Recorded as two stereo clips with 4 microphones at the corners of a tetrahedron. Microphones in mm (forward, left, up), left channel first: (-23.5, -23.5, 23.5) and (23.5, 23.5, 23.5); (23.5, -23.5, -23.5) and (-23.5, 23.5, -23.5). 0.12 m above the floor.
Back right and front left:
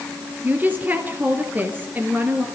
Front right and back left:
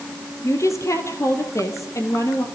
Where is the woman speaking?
15° right, 3 m.